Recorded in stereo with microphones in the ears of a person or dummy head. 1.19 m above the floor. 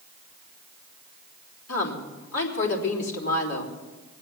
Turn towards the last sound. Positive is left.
turn(degrees=80)